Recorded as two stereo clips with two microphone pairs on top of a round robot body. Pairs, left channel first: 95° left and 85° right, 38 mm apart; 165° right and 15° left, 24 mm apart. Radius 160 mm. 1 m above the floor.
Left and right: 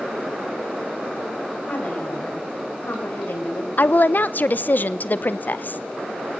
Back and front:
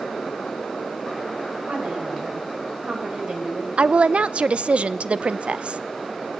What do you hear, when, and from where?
1.7 s a woman speaking: 40° left, 6 m; by 3.7 s 60° left, 4.5 m
3.8 s a woman speaking: 55° left, 0.9 m